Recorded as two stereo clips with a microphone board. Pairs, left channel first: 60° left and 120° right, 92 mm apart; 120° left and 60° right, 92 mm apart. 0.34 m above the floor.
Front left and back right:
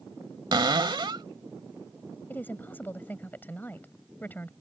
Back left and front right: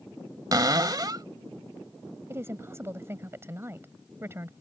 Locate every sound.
0.5 s a cupboard door: 95° right
2.3 s a woman speaking: 5° right